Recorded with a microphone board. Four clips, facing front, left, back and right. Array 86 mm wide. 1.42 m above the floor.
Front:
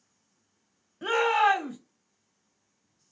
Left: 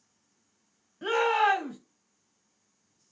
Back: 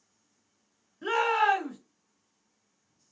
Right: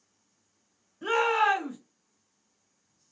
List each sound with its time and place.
1.0 s a shout: 25° left, 1.2 m